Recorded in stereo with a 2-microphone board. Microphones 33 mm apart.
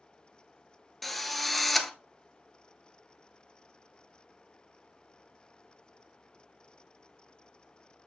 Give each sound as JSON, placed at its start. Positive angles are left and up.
{"t": 1.0, "sound": "a drill", "side_deg": 5, "distance_m": 1.0}